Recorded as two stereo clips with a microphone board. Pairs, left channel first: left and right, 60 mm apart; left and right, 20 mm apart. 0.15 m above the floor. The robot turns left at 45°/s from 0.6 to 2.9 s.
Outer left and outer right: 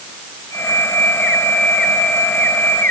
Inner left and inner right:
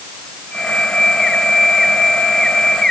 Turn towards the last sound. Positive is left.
No sound to turn to.